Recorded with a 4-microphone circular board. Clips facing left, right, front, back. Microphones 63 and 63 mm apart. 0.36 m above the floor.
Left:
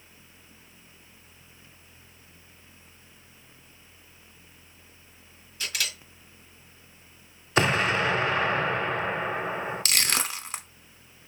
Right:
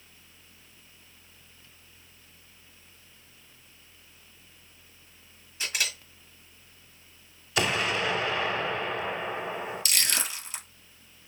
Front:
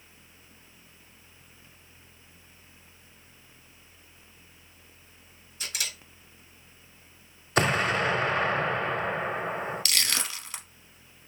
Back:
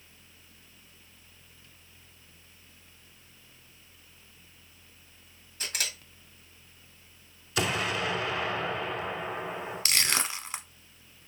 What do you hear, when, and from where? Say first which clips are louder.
5.6 s a camera shutter: right 1 dB, back 1 dB; 155° right, 1.7 m
7.6 s an explosion: left 4 dB, front 5 dB; 40° left, 0.7 m
9.8 s crushing: left 3 dB, back 1 dB; 120° left, 0.8 m